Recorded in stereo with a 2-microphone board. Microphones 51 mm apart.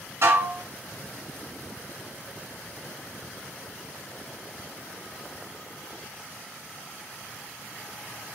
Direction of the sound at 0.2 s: 60° right (ahead or behind).